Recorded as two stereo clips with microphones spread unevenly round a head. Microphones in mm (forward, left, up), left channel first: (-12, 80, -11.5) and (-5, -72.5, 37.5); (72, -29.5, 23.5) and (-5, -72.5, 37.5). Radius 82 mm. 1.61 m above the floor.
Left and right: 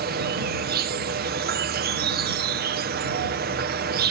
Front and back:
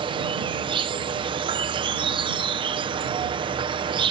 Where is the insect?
120° right.